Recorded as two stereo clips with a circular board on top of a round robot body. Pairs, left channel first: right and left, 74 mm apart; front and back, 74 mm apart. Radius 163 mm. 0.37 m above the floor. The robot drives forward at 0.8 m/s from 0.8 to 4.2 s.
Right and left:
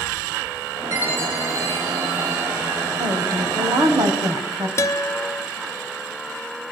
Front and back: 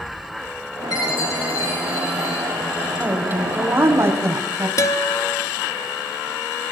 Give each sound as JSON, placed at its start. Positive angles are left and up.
{"t": 0.9, "sound": "a chime", "azimuth_deg": 30, "distance_m": 9.0}
{"t": 3.0, "sound": "a woman speaking", "azimuth_deg": 115, "distance_m": 3.5}
{"t": 4.8, "sound": "a guitar", "azimuth_deg": -40, "distance_m": 1.4}